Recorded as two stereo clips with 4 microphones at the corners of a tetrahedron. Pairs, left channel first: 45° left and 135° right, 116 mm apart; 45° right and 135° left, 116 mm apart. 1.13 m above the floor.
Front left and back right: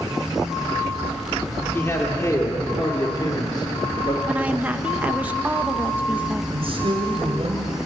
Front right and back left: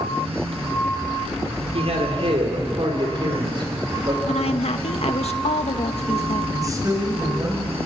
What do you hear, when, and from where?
1.7 s a man speaking: 115° left, 4 m; by 4.2 s 85° left, 5 m
4.3 s a woman speaking: 60° right, 1.1 m
6.5 s a man speaking: 170° right, 5.5 m